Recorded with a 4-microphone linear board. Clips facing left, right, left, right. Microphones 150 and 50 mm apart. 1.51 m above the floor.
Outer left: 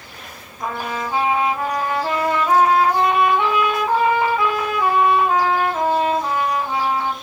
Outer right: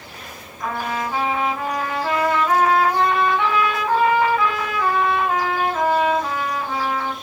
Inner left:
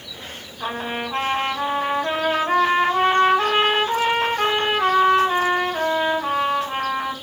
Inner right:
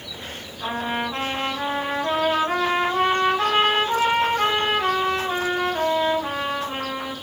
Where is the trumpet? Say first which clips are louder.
Even, inner right 1 dB; 20° left (ahead or behind), 1.2 m.